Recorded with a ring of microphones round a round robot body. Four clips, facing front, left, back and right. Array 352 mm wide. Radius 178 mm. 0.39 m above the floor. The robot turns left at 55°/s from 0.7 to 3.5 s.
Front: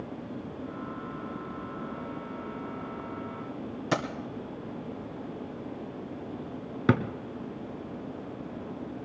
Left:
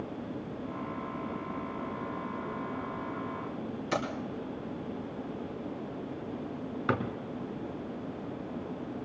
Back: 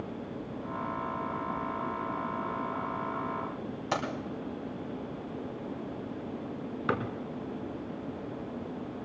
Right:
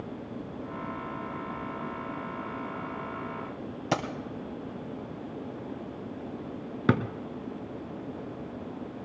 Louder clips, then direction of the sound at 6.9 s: Right 5 dB, front 6 dB; 45° right.